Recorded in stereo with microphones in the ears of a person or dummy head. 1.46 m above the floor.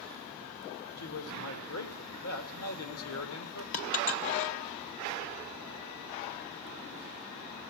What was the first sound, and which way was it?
A man speaking, 80° left.